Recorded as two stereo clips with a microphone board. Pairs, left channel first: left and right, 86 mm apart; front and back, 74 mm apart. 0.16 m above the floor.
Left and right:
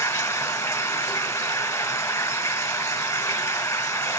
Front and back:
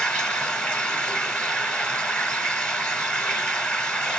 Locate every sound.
0.0 s running water: 65° left, 1.0 m